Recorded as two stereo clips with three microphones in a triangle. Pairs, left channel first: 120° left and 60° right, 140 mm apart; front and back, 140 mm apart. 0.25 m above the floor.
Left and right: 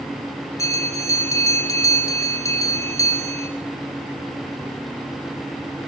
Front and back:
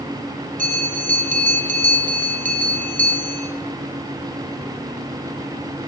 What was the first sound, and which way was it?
A bell, 175° right.